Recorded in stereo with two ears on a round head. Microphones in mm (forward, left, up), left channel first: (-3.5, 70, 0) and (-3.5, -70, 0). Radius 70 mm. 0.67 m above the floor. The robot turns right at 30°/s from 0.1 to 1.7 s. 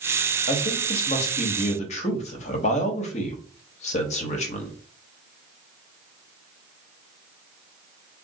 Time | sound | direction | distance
0.5 | a man speaking | 55° left | 0.8 m